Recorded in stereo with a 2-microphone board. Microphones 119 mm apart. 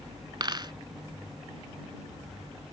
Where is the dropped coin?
40° right (ahead or behind).